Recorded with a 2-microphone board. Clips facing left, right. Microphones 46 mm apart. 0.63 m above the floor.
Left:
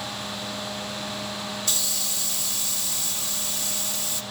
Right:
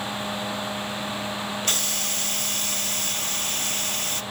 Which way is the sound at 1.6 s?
45° right (ahead or behind).